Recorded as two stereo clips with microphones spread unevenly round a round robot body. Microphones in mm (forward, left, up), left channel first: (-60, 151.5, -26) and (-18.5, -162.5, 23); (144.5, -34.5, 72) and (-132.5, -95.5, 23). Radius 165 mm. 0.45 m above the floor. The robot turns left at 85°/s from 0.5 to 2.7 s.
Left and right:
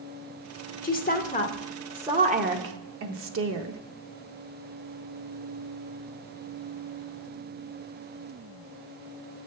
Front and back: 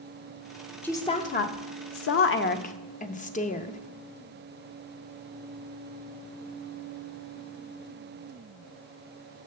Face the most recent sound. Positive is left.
turn(degrees=-50)